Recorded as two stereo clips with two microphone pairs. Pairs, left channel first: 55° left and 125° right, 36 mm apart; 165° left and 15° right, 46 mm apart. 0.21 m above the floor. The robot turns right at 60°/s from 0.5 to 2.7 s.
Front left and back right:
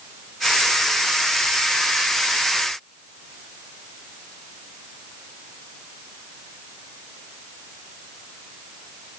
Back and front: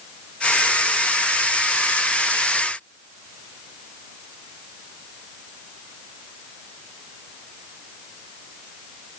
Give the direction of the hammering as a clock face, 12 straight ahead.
I don't hear hammering.